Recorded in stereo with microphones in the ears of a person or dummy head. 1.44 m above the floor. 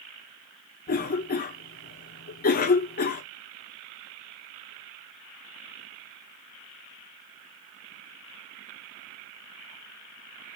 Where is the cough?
45° left (ahead or behind), 0.8 m.